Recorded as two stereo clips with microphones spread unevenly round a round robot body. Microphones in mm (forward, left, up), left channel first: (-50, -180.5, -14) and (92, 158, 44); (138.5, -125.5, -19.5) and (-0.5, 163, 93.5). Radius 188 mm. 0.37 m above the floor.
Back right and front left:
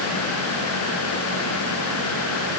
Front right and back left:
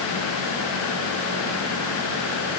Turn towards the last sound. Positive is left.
No sound to turn to.